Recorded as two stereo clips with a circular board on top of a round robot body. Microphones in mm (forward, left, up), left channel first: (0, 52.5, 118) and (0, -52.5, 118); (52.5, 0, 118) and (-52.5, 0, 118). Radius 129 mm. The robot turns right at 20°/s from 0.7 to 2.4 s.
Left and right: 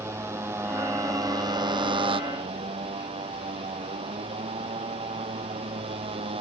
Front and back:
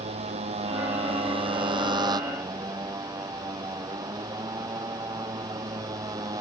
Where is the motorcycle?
155° right; by 6.4 s 125° right.